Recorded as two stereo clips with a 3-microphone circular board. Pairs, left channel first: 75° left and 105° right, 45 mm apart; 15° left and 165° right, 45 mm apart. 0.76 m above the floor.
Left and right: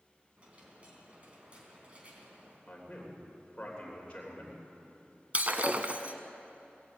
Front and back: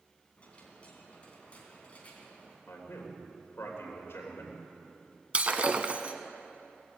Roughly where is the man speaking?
Ahead.